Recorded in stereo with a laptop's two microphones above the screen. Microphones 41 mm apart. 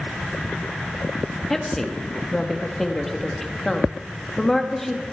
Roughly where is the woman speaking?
Centre.